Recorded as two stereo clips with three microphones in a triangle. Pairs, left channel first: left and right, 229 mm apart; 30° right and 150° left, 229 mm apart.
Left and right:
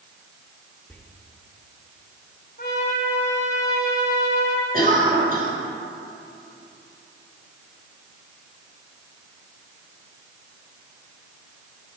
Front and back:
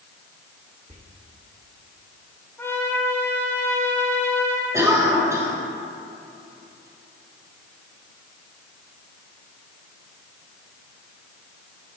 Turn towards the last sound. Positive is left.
turn(degrees=-135)